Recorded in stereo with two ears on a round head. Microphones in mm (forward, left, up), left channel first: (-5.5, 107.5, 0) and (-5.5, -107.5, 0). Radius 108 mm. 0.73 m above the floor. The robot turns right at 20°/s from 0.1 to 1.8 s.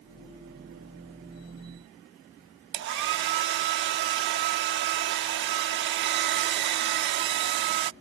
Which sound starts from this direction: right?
A hair dryer, at 2.7 s.